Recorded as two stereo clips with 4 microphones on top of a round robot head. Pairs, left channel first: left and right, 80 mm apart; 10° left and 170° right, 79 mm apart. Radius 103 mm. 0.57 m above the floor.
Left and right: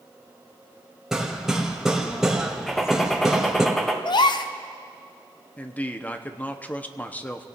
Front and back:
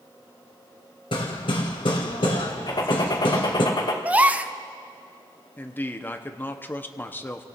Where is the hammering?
5° right, 1.8 m.